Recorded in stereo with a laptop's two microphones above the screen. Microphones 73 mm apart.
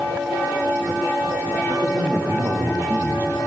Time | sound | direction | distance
1.7 | a man speaking | 60° right (ahead or behind) | 2.5 m